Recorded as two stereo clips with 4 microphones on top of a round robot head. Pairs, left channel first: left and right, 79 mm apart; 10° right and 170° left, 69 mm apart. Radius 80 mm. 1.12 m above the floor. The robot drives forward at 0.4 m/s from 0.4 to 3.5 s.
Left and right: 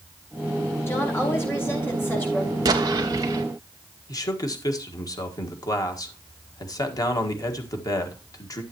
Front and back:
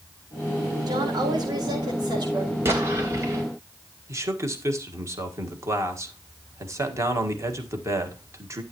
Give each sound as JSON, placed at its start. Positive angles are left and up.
{"t": 0.9, "sound": "a woman speaking", "azimuth_deg": 150, "distance_m": 4.5}
{"t": 2.6, "sound": "an explosion", "azimuth_deg": -130, "distance_m": 1.5}
{"t": 4.1, "sound": "a man speaking", "azimuth_deg": 125, "distance_m": 1.7}